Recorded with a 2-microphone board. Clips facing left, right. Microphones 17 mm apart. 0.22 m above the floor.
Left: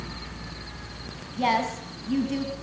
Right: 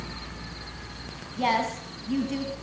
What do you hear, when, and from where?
1.4 s a woman speaking: 5° left (ahead or behind), 1.8 m